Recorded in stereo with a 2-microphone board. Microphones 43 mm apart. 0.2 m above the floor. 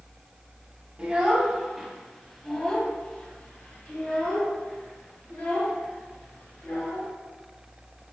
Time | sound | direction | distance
1.0 | a child speaking | 30° right (ahead or behind) | 1.1 m